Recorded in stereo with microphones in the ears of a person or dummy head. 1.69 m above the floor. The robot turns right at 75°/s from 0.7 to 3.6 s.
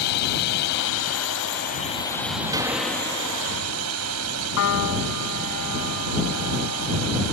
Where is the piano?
80° left.